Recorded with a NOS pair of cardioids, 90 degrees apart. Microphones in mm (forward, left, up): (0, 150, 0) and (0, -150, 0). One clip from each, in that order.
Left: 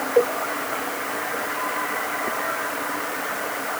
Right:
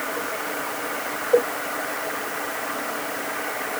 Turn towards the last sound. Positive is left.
No sound to turn to.